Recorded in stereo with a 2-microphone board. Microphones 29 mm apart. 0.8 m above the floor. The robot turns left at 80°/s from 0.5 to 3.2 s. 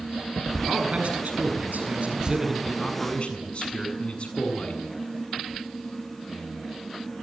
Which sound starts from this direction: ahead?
A man speaking, at 0.7 s.